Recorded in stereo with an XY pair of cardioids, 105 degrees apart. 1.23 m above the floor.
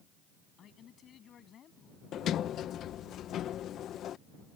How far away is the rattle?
I don't hear a rattle.